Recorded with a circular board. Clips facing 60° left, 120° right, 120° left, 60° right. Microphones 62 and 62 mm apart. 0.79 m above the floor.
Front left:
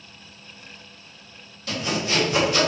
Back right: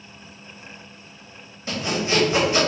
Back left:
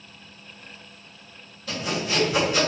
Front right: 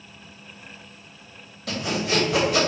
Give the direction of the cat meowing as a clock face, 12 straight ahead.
I don't hear a cat meowing.